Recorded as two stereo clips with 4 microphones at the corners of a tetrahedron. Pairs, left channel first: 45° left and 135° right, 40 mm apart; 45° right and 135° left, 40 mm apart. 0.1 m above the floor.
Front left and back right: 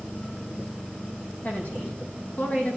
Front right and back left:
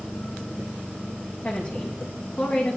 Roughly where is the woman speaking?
Ahead.